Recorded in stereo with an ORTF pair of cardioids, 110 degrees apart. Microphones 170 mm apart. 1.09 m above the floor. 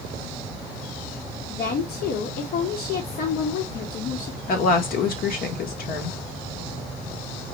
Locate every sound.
1.5 s a woman speaking: 65° left, 1.6 m
4.5 s a woman speaking: 65° left, 1.5 m